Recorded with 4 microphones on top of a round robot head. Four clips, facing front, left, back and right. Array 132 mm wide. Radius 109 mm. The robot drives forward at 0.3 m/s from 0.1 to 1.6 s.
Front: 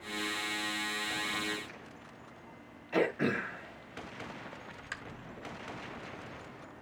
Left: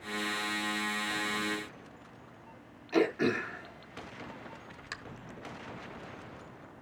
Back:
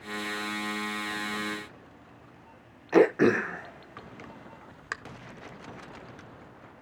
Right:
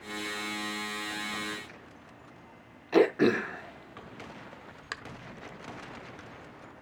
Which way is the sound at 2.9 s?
155° right.